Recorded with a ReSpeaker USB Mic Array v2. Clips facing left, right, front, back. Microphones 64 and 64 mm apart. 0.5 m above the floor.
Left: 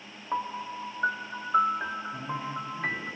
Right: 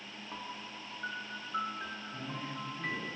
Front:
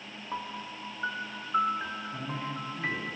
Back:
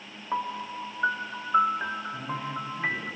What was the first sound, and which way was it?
A piano, 120° left.